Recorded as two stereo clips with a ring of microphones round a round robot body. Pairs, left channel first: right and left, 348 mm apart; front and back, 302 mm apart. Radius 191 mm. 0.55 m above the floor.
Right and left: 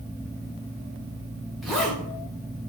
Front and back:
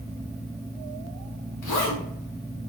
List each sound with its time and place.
1.6 s a zipper: straight ahead, 1.9 m